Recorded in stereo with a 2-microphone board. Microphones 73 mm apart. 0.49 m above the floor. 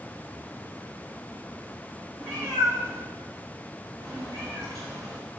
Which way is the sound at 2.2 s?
70° right (ahead or behind).